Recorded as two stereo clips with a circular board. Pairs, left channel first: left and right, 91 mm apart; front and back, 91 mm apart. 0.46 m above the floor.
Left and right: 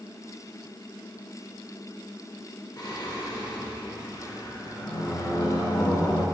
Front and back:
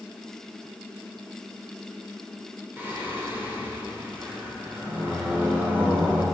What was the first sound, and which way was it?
Singing, 120° left.